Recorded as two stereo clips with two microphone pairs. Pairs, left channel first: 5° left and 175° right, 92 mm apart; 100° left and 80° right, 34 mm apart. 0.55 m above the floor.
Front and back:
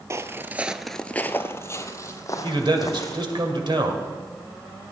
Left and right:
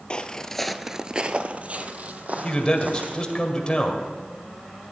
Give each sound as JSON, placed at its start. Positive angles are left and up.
{"t": 0.1, "sound": "footsteps", "azimuth_deg": 140, "distance_m": 0.7}
{"t": 2.4, "sound": "a man speaking", "azimuth_deg": 160, "distance_m": 2.0}